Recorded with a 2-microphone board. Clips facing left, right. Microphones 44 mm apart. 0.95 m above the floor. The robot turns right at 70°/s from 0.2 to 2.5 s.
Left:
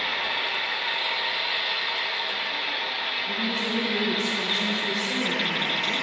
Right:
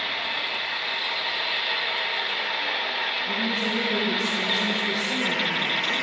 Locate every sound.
0.0 s an engine running: 85° left, 1.1 m; by 6.0 s 115° right, 1.1 m
3.3 s a woman speaking: 5° right (ahead or behind), 0.7 m